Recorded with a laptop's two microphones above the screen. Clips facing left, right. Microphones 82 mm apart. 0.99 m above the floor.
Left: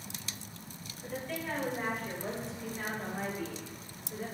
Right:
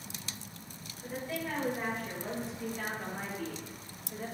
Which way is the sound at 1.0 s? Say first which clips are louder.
Right 1 dB; 10° right (ahead or behind).